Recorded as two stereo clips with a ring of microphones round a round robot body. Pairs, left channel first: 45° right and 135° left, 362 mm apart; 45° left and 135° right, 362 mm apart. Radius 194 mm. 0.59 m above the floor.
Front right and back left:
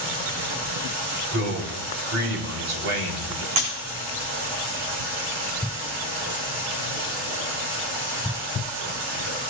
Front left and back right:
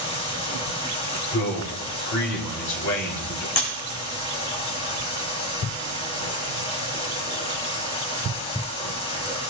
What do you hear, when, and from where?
0.0 s running water: 120° left, 5.5 m
1.3 s a man speaking: 85° left, 3.5 m
3.6 s breaking glass: 100° left, 7.5 m